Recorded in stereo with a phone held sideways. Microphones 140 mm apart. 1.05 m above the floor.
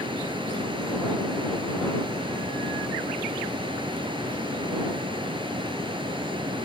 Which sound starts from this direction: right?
A fan, at 0.0 s.